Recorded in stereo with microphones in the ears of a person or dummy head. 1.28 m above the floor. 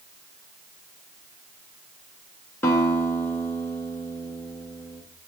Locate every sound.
2.6 s a guitar: 20° left (ahead or behind), 1.7 m